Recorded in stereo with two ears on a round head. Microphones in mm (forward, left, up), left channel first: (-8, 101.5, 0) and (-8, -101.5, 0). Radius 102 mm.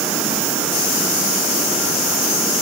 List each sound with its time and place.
Only background noise.